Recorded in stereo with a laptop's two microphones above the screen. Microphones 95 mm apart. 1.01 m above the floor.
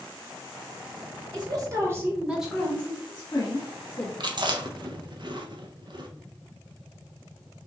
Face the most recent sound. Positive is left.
turn(degrees=-55)  # may be behind; listen again after turning